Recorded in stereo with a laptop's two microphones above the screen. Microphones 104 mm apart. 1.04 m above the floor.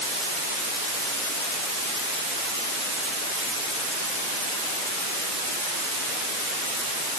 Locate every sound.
Only background noise.